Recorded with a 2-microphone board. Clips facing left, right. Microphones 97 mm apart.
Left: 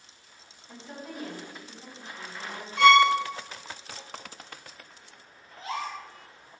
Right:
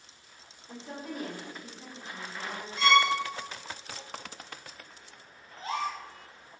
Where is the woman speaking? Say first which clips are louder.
Right 2 dB; 60° right (ahead or behind), 1.5 m; by 2.7 s 10° right (ahead or behind), 0.8 m.